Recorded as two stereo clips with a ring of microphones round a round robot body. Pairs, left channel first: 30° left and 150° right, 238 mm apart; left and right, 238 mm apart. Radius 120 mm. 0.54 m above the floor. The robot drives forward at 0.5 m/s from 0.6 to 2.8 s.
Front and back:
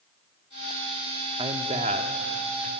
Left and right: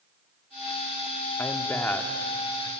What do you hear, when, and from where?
1.4 s a man speaking: 160° left, 1.1 m; by 2.7 s 170° left, 1.5 m